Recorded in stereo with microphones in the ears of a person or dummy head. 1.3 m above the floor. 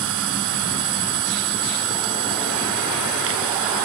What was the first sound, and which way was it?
A machine running, 70° right (ahead or behind).